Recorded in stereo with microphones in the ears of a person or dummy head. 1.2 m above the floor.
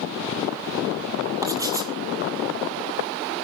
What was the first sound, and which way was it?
Writing, 15° right (ahead or behind).